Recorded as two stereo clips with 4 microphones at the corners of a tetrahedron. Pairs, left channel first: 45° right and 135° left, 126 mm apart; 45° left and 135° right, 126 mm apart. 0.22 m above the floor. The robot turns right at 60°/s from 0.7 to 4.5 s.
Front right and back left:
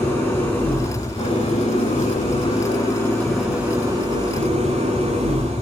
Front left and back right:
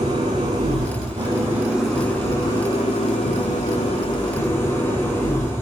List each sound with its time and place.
0.0 s an engine running: 115° right, 8 m; by 5.6 s 115° left, 8 m